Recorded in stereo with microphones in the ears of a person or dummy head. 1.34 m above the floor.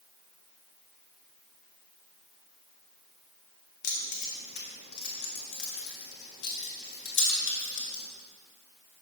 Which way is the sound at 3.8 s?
55° left (ahead or behind).